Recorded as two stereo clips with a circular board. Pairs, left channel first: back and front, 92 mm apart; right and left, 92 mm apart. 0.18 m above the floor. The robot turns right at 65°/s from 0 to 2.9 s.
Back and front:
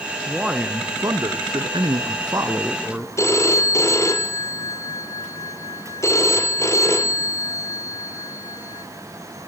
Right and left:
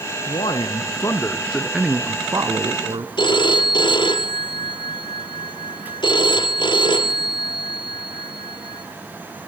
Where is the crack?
No crack in this recording.